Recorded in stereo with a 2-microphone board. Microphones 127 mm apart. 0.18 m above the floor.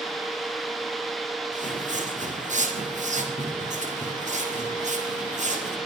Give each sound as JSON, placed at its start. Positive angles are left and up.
{"t": 1.5, "sound": "footsteps", "side_deg": -70, "distance_m": 8.0}